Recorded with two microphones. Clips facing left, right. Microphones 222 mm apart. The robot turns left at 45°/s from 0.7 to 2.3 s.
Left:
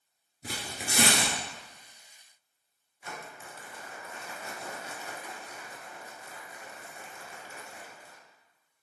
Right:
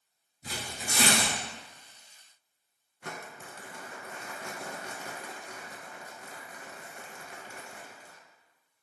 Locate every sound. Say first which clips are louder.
0.4 s tearing paper: left 1 dB; 65° left (ahead or behind), 1.4 m; by 1.4 s 60° left (ahead or behind), 1.4 m
3.0 s crumpling: right 1 dB; 65° right (ahead or behind), 1.0 m